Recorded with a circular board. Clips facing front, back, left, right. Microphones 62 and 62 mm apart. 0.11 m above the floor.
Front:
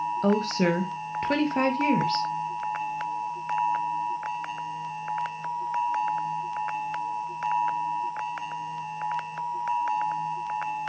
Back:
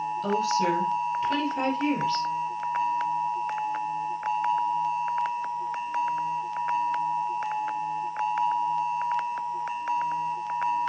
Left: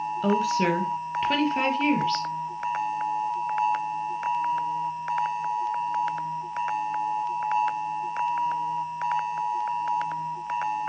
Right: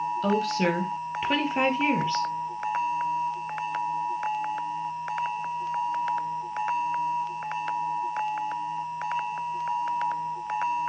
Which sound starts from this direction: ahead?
A woman speaking, at 0.2 s.